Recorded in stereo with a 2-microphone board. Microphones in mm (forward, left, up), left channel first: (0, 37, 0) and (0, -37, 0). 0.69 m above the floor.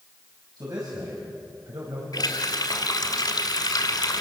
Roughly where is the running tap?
Left.